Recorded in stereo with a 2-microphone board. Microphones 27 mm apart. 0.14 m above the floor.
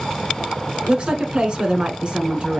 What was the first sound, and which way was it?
A woman speaking, 35° right (ahead or behind).